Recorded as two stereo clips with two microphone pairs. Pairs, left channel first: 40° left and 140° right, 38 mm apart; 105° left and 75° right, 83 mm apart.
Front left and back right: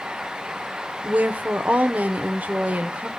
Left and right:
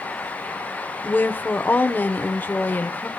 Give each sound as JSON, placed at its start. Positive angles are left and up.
{"t": 1.0, "sound": "a woman speaking", "azimuth_deg": 175, "distance_m": 0.8}